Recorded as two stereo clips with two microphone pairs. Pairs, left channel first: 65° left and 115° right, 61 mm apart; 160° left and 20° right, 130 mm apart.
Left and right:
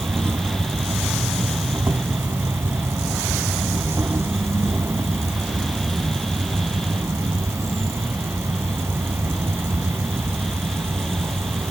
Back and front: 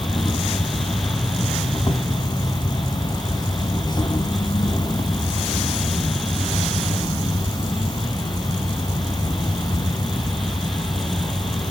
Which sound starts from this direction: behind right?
An insect, at 0.0 s.